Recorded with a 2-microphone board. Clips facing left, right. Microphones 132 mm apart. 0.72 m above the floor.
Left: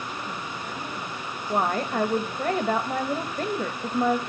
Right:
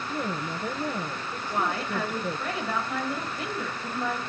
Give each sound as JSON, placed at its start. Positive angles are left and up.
{"t": 0.1, "sound": "a woman speaking", "side_deg": -80, "distance_m": 6.5}
{"t": 1.5, "sound": "a woman speaking", "side_deg": 45, "distance_m": 2.5}